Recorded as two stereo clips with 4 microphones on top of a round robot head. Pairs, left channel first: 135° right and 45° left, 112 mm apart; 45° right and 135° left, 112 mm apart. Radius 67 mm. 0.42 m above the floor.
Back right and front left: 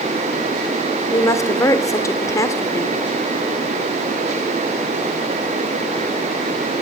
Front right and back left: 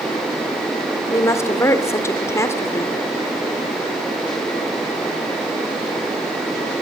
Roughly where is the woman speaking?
Right.